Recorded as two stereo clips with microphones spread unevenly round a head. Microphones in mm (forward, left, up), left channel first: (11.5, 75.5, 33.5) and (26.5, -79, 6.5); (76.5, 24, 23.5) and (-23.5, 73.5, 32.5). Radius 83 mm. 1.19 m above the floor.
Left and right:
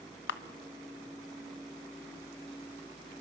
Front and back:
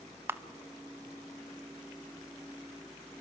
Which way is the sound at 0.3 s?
85° left.